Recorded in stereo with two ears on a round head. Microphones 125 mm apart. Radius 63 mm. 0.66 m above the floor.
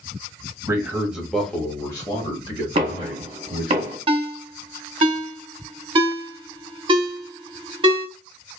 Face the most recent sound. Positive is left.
turn(degrees=-40)  # may be behind; listen again after turning